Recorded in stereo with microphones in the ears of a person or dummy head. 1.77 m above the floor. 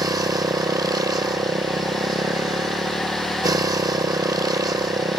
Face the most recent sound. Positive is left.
turn(degrees=-20)  # may be behind; listen again after turning